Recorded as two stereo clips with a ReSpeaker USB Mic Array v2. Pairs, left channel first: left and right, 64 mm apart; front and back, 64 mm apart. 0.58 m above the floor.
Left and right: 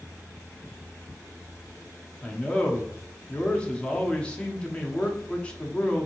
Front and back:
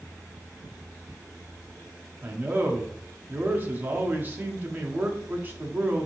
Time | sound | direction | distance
2.2 | a man speaking | 150° left | 0.7 m